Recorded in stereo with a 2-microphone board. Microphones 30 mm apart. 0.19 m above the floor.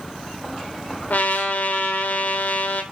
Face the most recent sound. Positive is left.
turn(degrees=70)  # may be behind; listen again after turning